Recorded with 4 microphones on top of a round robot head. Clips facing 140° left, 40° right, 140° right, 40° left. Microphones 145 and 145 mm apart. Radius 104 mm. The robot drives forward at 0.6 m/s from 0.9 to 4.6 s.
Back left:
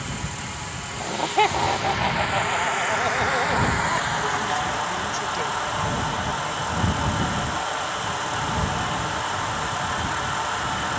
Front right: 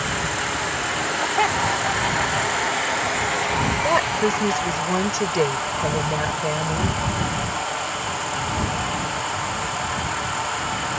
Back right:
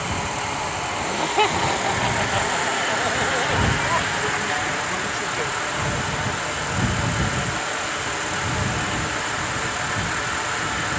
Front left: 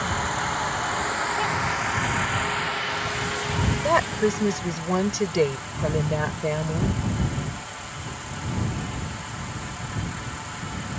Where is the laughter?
155° right; by 3.7 s 165° right.